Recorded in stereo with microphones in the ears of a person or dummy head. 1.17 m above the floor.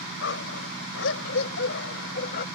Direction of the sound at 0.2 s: 75° left (ahead or behind).